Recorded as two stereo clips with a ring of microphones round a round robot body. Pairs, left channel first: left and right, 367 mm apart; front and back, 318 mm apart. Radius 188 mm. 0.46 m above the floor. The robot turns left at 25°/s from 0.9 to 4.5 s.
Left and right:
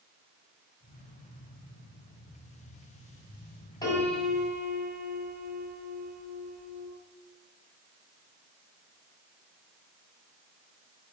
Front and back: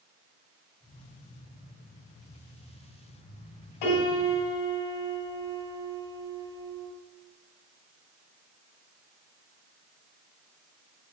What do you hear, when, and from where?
3.8 s a piano: 10° left, 2 m; by 6.9 s 5° right, 2 m